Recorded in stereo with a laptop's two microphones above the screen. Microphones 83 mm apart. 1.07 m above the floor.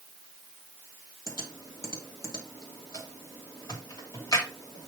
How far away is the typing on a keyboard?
About 2.5 m.